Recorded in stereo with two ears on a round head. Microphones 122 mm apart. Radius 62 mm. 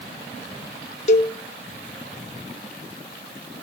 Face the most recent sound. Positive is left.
turn(degrees=50)  # may be behind; listen again after turning